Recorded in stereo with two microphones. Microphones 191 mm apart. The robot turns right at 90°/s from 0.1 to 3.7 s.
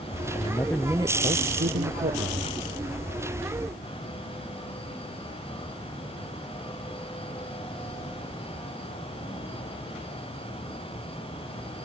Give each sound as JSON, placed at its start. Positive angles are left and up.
{"t": 0.3, "sound": "a man speaking", "azimuth_deg": 140}